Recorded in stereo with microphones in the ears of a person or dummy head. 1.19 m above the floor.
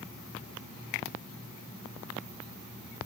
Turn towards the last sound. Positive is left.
No sound to turn to.